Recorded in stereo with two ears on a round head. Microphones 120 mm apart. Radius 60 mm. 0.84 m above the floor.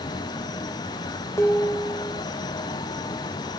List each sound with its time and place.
1.4 s dishes clattering: 20° left (ahead or behind), 1.1 m